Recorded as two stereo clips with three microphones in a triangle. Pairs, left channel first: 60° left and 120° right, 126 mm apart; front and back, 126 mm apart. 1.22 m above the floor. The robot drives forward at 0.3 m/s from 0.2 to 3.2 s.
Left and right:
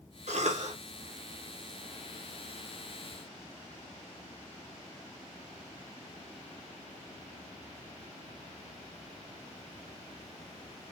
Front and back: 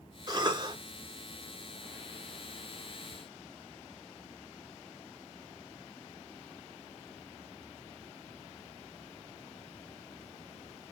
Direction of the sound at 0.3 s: 125° right.